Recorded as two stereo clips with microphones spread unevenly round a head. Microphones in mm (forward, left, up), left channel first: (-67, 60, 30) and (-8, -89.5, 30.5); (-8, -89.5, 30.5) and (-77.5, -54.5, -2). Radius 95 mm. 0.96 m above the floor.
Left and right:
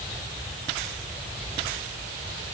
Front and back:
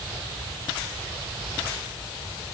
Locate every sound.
Only background noise.